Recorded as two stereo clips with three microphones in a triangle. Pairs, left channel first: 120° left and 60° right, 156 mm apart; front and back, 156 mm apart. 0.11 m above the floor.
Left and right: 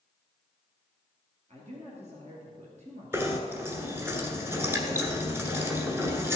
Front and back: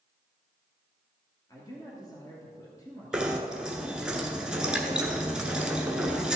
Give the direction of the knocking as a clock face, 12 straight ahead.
4 o'clock.